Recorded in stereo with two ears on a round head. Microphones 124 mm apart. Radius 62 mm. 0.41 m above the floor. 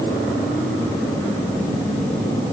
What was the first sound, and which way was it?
Only background noise.